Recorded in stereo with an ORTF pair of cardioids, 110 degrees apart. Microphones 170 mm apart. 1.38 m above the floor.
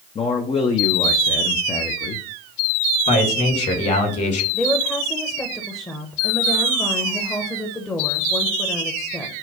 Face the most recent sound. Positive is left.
turn(degrees=15)